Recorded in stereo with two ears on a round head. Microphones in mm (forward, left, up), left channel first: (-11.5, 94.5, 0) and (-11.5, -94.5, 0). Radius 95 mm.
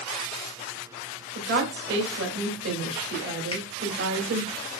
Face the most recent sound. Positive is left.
turn(degrees=30)  # may be behind; listen again after turning